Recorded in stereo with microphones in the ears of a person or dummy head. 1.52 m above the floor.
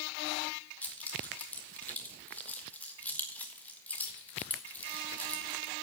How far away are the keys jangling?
About 1.4 m.